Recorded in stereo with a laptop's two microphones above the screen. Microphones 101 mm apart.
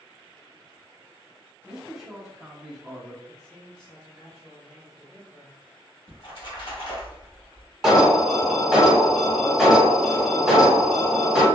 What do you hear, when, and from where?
1.6 s a man speaking: centre (ahead or behind), 0.7 m
3.3 s a man speaking: 5° left (ahead or behind), 0.8 m
6.1 s a splash: 55° left (ahead or behind), 1.3 m
7.8 s an alarm: 5° right (ahead or behind), 0.7 m